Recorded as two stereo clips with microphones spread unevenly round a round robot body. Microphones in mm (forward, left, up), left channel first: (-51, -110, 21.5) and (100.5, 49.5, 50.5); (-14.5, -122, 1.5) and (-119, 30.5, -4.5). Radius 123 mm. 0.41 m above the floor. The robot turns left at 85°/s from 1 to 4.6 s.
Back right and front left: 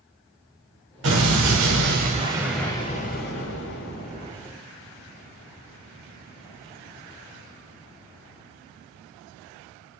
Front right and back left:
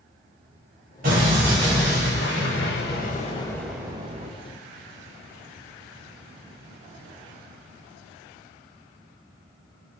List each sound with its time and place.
1.0 s an explosion: 80° left, 0.9 m; by 4.3 s 165° left, 0.9 m